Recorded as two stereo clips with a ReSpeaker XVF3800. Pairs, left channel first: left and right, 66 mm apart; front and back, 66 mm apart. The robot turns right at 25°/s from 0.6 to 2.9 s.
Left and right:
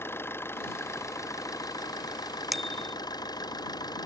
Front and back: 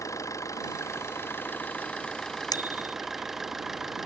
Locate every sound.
0.0 s an engine running: 35° left; by 4.1 s 95° left
2.5 s a bicycle bell: straight ahead; by 3.0 s 10° left